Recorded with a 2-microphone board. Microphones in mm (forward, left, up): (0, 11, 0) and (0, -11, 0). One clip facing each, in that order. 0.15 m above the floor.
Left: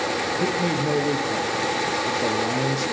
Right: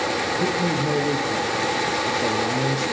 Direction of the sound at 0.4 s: 35° left (ahead or behind).